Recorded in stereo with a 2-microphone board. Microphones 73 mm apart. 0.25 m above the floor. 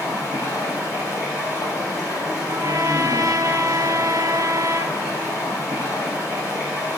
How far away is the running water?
About 4 m.